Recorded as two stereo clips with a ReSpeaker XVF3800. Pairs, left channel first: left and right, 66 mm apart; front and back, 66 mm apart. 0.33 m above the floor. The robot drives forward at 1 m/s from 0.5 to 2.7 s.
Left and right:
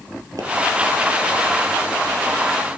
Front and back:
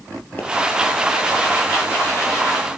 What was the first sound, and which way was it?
A pop, 65° right.